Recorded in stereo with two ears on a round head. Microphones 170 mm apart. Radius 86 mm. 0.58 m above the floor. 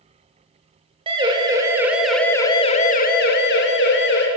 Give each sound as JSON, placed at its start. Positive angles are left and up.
{"t": 1.1, "sound": "a siren", "side_deg": -25, "distance_m": 2.0}